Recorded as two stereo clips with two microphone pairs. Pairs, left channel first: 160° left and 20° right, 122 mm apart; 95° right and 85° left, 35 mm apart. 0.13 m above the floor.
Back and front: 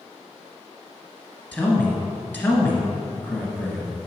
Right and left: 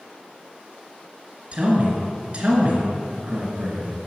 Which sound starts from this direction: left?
A man speaking, at 1.5 s.